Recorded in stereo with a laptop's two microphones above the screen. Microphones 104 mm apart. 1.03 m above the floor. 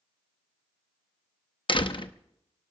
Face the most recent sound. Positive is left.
turn(degrees=55)  # may be behind; listen again after turning